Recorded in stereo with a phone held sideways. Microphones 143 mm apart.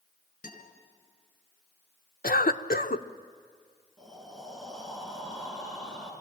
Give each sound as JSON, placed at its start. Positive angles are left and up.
{"t": 0.4, "sound": "a guitar", "side_deg": 65, "distance_m": 4.5}
{"t": 2.2, "sound": "a cough", "side_deg": 75, "distance_m": 0.9}
{"t": 4.0, "sound": "breathing", "side_deg": 5, "distance_m": 6.0}